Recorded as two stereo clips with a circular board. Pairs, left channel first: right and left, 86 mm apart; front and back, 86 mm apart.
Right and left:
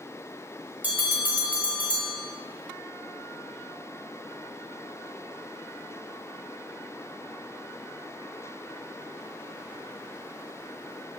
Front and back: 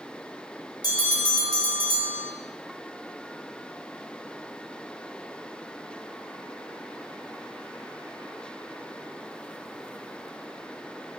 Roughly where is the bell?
Ahead.